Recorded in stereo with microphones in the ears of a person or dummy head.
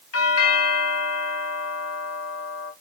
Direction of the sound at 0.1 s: 85° left.